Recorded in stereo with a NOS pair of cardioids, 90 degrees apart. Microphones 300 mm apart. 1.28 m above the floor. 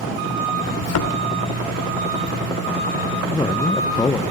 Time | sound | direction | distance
0.8 | a thud | 60° left | 2.5 m
3.3 | a man speaking | 15° left | 0.7 m